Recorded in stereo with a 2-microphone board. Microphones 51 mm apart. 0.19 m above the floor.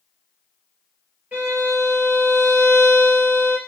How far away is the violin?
About 3.5 m.